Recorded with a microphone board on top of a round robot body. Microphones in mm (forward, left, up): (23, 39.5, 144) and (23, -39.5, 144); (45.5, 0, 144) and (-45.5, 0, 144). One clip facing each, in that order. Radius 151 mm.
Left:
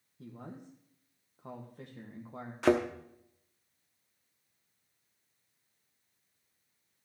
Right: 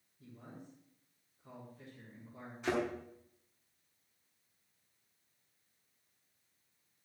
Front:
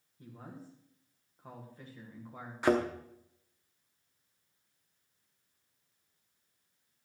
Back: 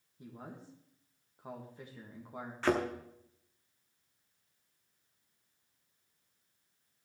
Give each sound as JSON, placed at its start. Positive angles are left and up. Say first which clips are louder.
{"t": 0.2, "sound": "a man speaking", "louder": "left 6 dB, even", "azimuth_deg": 105, "distance_m": 1.7}
{"t": 2.6, "sound": "a thud", "louder": "left 8 dB, front 3 dB", "azimuth_deg": 80, "distance_m": 0.9}